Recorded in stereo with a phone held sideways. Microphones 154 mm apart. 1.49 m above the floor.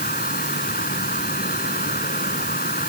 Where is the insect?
75° left (ahead or behind).